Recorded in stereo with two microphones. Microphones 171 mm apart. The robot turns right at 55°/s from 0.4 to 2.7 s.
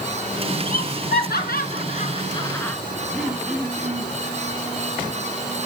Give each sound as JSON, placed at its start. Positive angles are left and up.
{"t": 0.7, "sound": "laughter", "side_deg": 50, "distance_m": 3.5}
{"t": 3.1, "sound": "throat clearing", "side_deg": -5, "distance_m": 4.5}